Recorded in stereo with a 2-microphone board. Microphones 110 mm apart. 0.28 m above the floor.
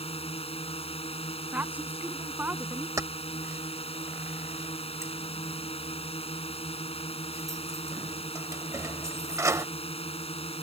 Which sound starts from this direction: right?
Keys jangling, at 3.0 s.